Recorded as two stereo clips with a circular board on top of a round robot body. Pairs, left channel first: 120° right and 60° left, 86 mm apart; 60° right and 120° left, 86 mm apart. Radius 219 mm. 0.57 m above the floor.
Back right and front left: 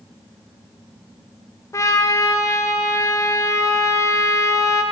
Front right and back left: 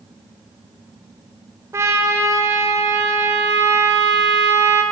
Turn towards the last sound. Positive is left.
turn(degrees=180)